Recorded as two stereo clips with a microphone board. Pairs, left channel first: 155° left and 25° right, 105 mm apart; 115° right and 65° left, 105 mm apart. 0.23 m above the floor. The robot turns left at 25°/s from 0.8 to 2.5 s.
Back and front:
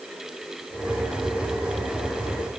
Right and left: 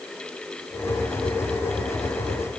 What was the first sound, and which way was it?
Only background noise.